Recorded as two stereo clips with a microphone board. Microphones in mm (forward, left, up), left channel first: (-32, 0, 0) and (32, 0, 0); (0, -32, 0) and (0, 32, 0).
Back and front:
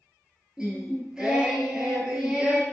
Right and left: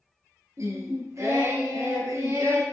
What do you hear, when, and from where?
0.6 s singing: 75° left, 1.2 m